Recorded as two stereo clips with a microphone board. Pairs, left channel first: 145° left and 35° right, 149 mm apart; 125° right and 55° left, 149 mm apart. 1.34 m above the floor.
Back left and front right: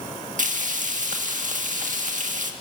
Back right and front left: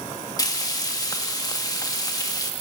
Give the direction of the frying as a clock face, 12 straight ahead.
2 o'clock.